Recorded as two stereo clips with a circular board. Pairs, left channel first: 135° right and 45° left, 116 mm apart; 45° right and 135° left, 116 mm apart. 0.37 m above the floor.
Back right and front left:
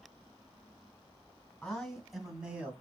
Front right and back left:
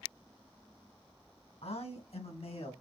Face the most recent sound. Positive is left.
turn(degrees=-30)